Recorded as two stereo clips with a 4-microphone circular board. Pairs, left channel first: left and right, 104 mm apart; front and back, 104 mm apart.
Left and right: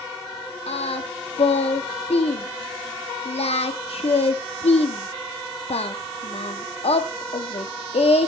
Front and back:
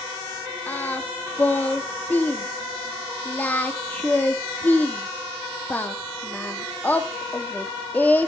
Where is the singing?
75° left, 1.2 m.